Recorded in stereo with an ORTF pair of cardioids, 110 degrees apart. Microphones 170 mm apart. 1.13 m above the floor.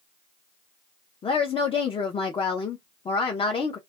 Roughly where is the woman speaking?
Ahead left.